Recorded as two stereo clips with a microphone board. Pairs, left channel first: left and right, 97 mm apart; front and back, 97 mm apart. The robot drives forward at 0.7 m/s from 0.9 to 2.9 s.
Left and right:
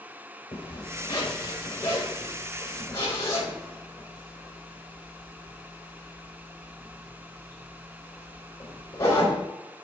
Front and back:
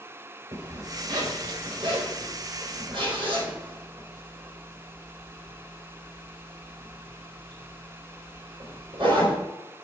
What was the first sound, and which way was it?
A zipper, 130° left.